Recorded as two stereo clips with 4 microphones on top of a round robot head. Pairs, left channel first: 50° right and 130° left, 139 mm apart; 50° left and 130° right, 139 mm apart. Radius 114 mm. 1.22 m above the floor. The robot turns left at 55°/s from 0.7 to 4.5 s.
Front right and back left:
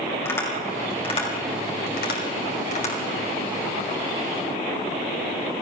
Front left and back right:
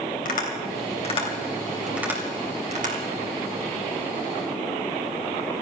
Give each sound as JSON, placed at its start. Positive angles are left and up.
{"t": 0.2, "sound": "tapping", "azimuth_deg": 25, "distance_m": 3.0}